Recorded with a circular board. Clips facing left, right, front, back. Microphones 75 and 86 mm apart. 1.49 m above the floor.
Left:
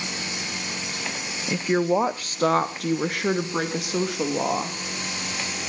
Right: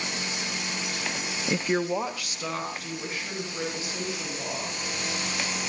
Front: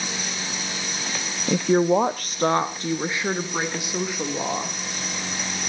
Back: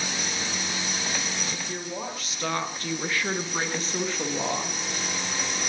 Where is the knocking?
No knocking in this recording.